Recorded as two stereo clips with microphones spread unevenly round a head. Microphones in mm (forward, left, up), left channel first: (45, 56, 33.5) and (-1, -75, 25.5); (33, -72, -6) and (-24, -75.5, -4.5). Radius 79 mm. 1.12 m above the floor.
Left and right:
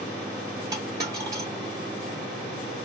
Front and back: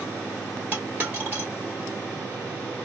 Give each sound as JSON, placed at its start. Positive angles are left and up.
{"t": 0.7, "sound": "a dropped coin", "azimuth_deg": -165, "distance_m": 1.2}